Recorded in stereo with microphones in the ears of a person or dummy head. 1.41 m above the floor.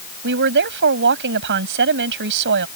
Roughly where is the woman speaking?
Right.